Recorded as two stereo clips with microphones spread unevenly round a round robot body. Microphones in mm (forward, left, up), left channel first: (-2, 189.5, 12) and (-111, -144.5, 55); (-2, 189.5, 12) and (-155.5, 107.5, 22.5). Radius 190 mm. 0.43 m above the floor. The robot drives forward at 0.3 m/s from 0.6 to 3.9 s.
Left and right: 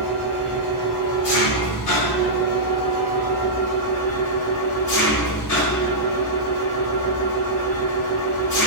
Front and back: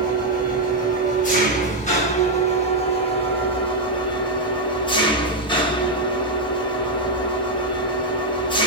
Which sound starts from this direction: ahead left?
An engine running, at 0.0 s.